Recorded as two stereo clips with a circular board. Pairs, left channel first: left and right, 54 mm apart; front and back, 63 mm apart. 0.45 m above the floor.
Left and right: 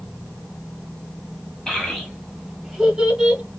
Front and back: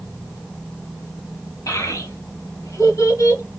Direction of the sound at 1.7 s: 15° left.